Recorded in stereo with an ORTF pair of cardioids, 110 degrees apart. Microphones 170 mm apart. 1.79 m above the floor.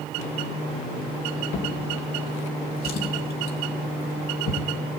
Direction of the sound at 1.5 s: 70° left.